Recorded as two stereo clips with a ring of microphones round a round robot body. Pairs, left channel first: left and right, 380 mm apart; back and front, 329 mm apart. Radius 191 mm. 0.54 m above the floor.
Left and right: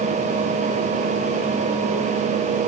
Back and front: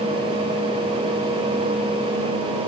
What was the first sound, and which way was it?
Only background noise.